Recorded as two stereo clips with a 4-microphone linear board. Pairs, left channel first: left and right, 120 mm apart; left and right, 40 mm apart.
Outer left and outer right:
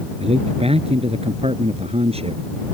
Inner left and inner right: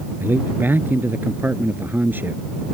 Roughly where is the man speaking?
Right.